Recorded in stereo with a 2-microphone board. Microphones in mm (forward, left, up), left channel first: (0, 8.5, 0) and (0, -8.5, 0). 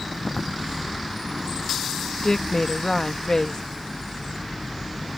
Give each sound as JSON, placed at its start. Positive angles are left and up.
{"t": 2.2, "sound": "a woman speaking", "side_deg": 35}